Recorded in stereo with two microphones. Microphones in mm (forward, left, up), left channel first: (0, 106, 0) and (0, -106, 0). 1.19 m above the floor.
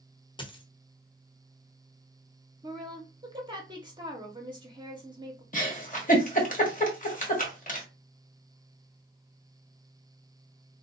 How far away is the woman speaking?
About 0.8 m.